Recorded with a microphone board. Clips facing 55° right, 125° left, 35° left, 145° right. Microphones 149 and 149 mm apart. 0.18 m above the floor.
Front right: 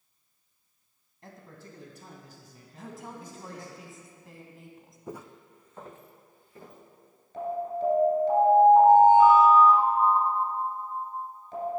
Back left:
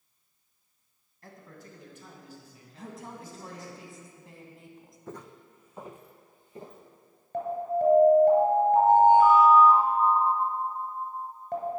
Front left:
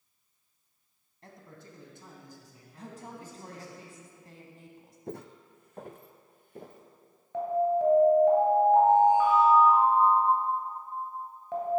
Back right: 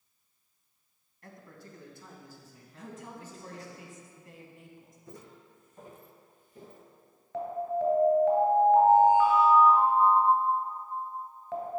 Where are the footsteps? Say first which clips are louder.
Front right 2 dB, front left 9 dB; 20° left, 0.5 m; by 6.8 s 60° left, 1.2 m.